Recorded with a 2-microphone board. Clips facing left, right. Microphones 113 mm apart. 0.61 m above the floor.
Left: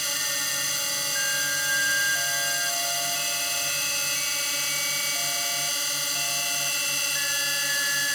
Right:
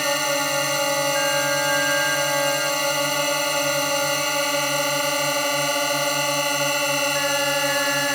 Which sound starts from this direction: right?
A drone, at 0.0 s.